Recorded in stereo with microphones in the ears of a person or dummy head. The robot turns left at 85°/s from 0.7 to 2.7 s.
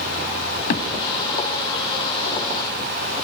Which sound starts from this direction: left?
A thud, at 0.7 s.